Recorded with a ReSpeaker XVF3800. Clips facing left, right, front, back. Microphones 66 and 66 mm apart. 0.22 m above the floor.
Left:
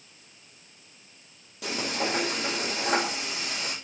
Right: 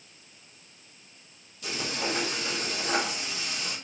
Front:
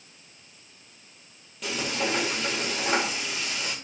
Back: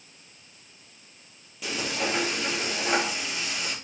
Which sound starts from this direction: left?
Frying, at 1.6 s.